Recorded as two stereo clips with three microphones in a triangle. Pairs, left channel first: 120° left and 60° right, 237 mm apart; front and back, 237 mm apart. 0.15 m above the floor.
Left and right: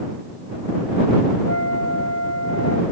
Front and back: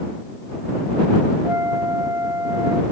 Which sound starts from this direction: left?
A flute, at 1.4 s.